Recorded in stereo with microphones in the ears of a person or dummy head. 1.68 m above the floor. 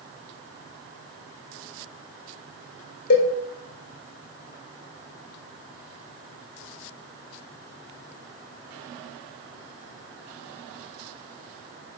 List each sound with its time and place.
3.1 s a cowbell: 65° left (ahead or behind), 1.5 m